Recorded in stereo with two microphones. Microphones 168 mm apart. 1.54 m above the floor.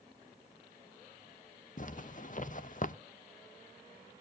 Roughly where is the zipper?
Left.